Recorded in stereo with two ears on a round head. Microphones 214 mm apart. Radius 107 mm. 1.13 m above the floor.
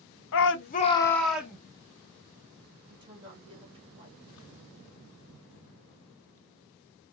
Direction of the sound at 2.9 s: 20° right (ahead or behind).